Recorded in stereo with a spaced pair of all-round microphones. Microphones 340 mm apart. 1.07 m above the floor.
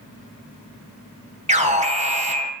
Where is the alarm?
20° right (ahead or behind), 1.2 m.